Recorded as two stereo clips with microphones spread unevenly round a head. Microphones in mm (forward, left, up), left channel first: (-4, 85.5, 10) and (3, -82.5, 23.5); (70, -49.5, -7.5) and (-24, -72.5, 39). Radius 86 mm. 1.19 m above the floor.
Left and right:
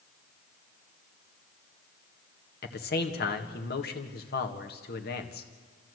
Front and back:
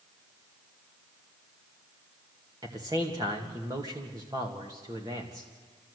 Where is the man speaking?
120° left, 1.8 m.